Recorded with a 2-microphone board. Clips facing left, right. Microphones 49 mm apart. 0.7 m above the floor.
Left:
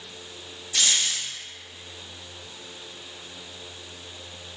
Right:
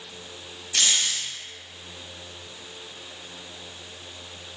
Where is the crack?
No crack in this recording.